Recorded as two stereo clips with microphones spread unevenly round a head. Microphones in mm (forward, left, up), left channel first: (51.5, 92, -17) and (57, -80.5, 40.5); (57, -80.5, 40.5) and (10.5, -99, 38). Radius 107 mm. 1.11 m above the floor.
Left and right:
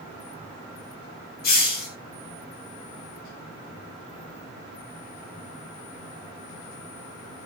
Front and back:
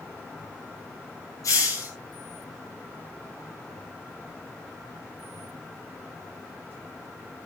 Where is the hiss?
60° left, 7.5 m.